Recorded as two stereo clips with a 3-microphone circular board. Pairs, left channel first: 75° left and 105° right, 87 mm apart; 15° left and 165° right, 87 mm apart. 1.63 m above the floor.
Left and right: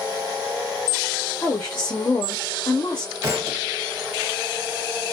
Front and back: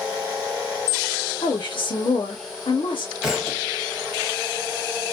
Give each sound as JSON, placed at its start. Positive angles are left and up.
{"t": 1.4, "sound": "a woman speaking", "azimuth_deg": 20, "distance_m": 1.0}
{"t": 3.2, "sound": "a thud", "azimuth_deg": -80, "distance_m": 1.6}